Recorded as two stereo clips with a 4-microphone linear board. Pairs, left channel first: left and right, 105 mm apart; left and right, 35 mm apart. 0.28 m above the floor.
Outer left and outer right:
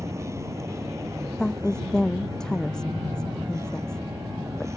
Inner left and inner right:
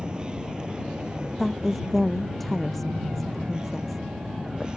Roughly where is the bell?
I don't hear a bell.